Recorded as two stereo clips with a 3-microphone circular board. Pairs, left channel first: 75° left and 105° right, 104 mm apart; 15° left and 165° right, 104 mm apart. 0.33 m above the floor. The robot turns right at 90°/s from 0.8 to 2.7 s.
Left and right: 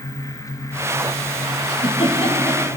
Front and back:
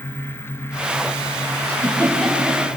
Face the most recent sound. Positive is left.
turn(degrees=140)